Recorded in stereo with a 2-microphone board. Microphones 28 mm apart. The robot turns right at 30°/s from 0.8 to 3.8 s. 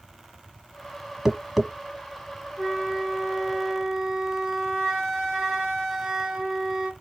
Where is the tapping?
5° right (ahead or behind), 1.0 m; by 1.7 s 5° left (ahead or behind), 1.0 m.